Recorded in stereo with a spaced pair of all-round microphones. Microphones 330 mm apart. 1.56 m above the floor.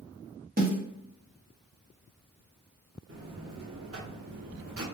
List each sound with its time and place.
0.6 s a snare drum: 25° right (ahead or behind), 0.9 m
3.1 s a buzzer: 45° right (ahead or behind), 0.7 m